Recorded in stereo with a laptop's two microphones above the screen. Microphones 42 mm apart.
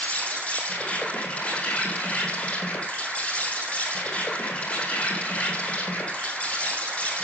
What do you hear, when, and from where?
0.0 s an insect: 30° left (ahead or behind), 4 m